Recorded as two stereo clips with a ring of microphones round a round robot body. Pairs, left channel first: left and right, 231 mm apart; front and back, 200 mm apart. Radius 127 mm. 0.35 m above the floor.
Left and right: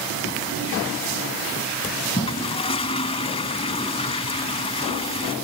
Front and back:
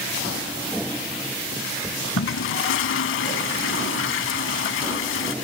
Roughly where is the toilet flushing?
Ahead.